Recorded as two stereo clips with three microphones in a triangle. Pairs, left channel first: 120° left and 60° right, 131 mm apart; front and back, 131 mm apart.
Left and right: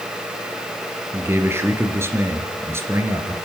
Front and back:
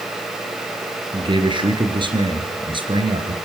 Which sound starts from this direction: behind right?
A man speaking, at 1.1 s.